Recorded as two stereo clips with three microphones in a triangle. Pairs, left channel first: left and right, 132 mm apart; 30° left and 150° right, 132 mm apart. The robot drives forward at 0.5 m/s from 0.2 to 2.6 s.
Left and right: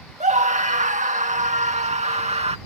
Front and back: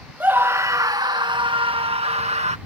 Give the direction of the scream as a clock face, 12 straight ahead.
2 o'clock.